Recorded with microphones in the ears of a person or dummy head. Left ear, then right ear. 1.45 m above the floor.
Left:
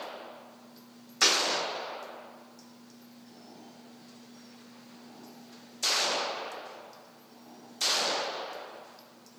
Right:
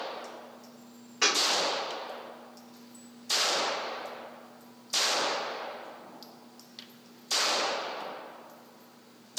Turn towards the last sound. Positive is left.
turn(degrees=30)  # may be behind; listen again after turning